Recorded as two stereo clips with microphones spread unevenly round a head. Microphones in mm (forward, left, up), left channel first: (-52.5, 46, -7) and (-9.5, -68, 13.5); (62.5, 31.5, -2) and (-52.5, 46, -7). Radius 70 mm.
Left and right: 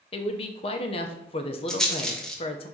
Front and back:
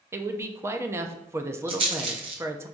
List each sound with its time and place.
0.1 s a man speaking: 120° left, 0.7 m
1.7 s a rattle: 155° right, 1.3 m